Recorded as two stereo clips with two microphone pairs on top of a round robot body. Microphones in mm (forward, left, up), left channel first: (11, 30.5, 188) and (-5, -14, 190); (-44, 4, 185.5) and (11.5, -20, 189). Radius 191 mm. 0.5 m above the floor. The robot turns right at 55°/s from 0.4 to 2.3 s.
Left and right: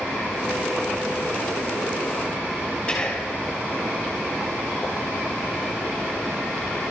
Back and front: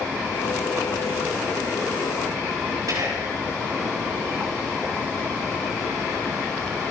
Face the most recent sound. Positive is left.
turn(degrees=5)